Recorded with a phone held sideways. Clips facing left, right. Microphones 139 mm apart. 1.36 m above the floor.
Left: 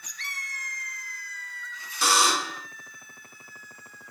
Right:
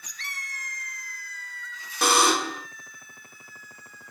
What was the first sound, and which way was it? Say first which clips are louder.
A buzzer: right 3 dB; 60° right (ahead or behind).